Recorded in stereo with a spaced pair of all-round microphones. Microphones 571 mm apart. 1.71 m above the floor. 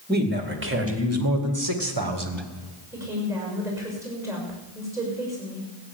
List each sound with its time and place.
0.1 s a man speaking: 15° right (ahead or behind), 2.5 m; by 2.5 s 50° right (ahead or behind), 1.5 m
2.9 s a woman speaking: 5° right (ahead or behind), 6.5 m